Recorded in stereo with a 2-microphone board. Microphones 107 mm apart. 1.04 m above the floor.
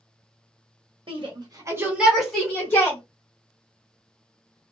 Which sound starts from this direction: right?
A shout, at 1.1 s.